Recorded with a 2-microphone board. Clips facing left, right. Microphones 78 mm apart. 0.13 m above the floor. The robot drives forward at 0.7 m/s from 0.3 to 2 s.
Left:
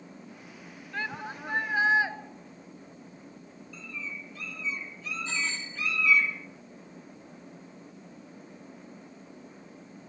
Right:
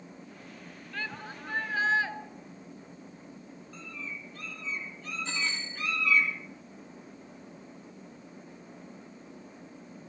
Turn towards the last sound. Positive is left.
turn(degrees=-80)